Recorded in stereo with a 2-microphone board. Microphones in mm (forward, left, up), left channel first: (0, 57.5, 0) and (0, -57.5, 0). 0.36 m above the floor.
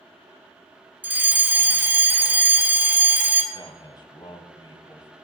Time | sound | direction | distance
1.0 | a fire alarm | 15° right (ahead or behind) | 2 m
3.5 | a man speaking | 40° left (ahead or behind) | 2.5 m